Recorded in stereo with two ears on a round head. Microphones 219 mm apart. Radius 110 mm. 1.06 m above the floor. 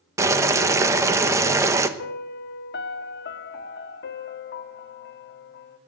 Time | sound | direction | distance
0.2 | boiling | 15° right (ahead or behind) | 1.0 m
2.0 | a piano | 45° left (ahead or behind) | 0.7 m